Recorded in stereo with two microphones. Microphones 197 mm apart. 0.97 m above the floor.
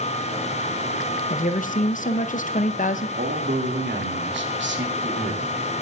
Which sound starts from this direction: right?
A man speaking, at 3.2 s.